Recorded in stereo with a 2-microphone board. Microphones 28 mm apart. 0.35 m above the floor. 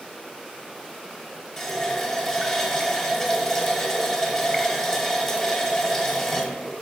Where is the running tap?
15° left (ahead or behind), 0.8 m.